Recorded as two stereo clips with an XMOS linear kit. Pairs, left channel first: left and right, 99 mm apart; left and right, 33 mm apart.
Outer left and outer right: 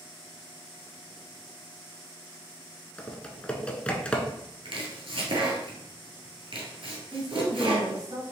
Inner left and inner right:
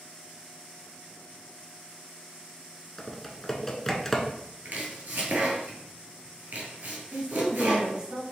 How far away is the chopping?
About 1.4 m.